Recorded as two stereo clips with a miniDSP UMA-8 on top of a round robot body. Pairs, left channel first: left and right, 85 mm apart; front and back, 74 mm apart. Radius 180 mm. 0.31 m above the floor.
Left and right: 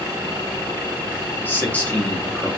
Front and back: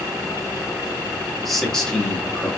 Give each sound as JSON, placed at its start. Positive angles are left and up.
{"t": 1.4, "sound": "a man speaking", "azimuth_deg": 90, "distance_m": 1.4}